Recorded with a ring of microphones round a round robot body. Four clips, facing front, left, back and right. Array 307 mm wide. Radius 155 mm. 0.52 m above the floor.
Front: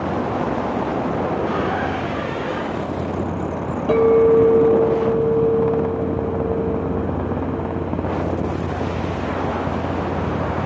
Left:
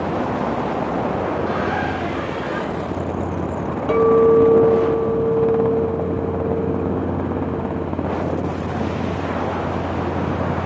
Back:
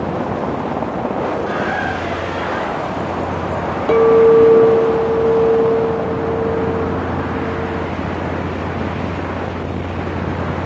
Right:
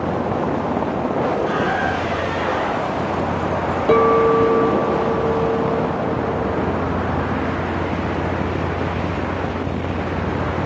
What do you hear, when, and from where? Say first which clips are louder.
1.5 s a squeak: right 2 dB, back 2 dB; 120° right, 2 m
3.9 s a clink: left 1 dB, back 4 dB; 135° right, 0.8 m